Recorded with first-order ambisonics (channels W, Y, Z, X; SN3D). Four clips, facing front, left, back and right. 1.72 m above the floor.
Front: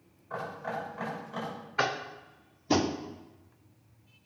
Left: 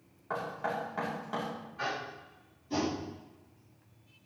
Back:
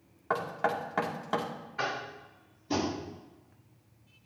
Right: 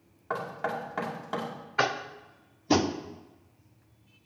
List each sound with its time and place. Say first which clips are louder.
0.3 s knocking: right 2 dB, back 6 dB; 160° right, 2 m
1.8 s tapping: right 9 dB, front 4 dB; 65° right, 0.9 m